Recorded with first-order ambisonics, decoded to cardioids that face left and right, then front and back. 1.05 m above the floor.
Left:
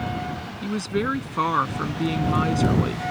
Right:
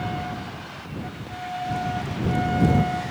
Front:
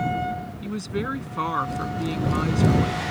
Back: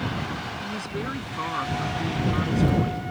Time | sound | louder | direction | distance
0.6 | a woman speaking | left 10 dB, front 1 dB | 80° left | ?